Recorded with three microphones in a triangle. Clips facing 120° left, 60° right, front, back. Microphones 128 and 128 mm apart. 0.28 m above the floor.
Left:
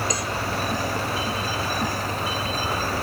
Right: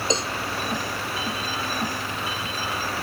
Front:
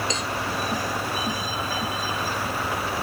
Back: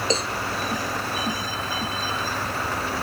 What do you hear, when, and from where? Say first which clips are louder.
0.1 s a cowbell: right 2 dB, back 4 dB; 125° right